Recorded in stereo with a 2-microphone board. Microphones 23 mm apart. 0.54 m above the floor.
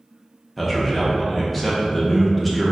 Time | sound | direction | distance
0.6 | a man speaking | 5° left (ahead or behind) | 0.7 m